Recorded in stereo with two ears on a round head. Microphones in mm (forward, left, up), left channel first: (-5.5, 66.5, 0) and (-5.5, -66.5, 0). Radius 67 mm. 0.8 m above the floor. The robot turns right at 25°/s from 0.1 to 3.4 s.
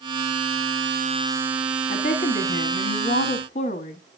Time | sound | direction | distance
1.9 | a woman speaking | 75° left | 1.5 m